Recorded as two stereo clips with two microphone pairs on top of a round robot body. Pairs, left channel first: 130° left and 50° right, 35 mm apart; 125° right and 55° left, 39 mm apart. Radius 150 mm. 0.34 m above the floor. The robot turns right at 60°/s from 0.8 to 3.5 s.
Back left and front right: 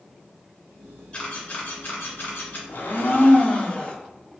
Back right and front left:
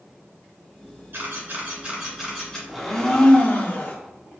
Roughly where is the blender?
Behind left.